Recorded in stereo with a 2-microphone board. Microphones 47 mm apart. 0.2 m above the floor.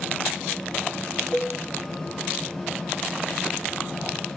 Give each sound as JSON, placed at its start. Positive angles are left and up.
{"t": 1.3, "sound": "a cowbell", "side_deg": 60, "distance_m": 5.5}